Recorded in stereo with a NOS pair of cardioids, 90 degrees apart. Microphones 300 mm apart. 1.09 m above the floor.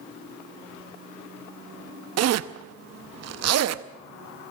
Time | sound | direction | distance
2.2 | a zipper | 60° right | 0.8 m